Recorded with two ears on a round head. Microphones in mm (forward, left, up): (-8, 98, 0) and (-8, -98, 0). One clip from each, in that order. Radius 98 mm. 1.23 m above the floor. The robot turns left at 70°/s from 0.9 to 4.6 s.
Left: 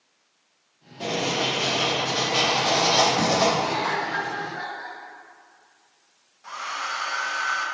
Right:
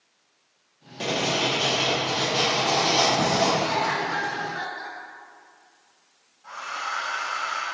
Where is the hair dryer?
60° left (ahead or behind), 1.6 m.